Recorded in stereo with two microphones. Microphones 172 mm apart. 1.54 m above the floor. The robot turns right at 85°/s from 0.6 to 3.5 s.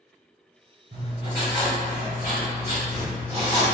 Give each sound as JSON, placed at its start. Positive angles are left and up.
{"t": 0.9, "sound": "writing", "azimuth_deg": -60, "distance_m": 1.6}